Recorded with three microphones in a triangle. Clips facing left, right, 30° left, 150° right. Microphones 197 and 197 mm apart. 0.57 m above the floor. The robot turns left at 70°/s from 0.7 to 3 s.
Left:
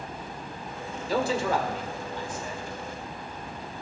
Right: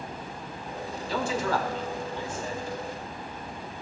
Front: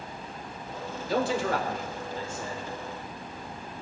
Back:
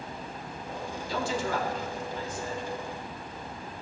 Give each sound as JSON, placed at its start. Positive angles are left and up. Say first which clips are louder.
{"t": 1.1, "sound": "a man speaking", "louder": "left 2 dB, front 4 dB", "azimuth_deg": 55, "distance_m": 1.8}